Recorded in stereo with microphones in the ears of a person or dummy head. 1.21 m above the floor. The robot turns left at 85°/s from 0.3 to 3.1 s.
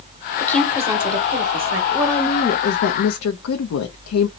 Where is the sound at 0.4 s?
15° left, 1.0 m; by 1.8 s 105° right, 1.0 m.